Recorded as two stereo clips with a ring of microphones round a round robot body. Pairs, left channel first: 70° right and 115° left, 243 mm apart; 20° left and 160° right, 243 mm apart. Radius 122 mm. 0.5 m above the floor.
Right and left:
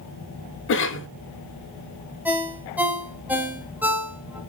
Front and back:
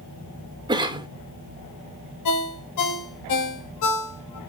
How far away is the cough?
About 1.1 m.